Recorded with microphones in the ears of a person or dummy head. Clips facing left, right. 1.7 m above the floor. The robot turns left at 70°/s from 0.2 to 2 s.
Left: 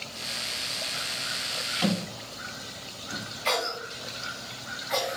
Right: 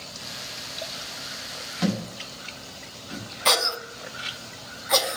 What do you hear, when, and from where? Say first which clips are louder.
1.8 s a thud: right 1 dB; 15° right (ahead or behind), 1.1 m
3.5 s a cough: right 3 dB; 65° right (ahead or behind), 0.6 m